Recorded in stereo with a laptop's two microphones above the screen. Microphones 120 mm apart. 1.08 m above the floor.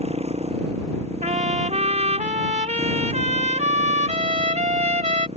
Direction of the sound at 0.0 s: 60° right (ahead or behind).